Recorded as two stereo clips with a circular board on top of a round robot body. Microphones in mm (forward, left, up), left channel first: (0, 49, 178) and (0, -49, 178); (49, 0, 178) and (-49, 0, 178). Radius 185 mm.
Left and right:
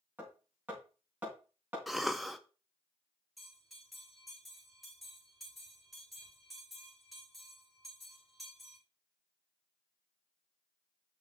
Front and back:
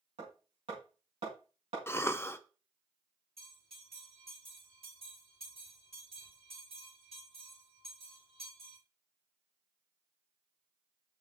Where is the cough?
Straight ahead, 0.8 m.